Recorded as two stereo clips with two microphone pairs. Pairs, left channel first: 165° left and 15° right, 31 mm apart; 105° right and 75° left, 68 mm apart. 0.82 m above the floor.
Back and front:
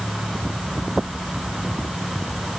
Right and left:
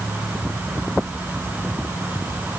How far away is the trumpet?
I don't hear a trumpet.